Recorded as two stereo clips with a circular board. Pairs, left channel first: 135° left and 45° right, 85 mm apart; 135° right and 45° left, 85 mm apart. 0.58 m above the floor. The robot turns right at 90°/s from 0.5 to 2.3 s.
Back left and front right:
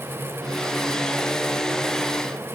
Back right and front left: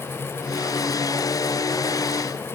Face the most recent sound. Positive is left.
No sound to turn to.